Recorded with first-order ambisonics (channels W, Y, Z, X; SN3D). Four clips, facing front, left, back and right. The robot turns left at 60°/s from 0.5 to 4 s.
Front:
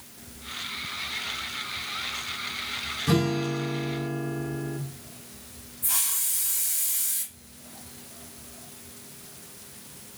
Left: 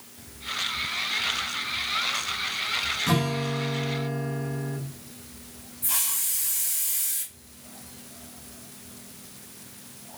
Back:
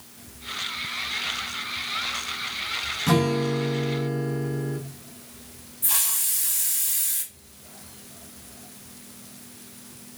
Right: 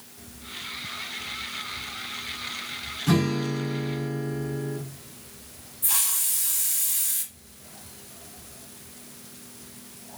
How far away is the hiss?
About 1.2 m.